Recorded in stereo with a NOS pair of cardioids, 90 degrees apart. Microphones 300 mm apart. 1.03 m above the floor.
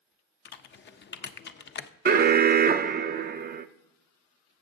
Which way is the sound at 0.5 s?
35° left.